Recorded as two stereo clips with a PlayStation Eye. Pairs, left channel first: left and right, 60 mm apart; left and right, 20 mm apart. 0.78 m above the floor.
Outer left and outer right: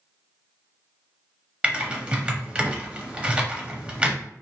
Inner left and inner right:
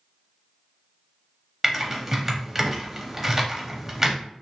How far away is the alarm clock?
I don't hear an alarm clock.